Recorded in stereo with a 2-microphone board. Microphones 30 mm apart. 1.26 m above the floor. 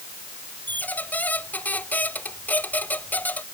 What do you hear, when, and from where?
0.7 s a squeak: 75° left (ahead or behind)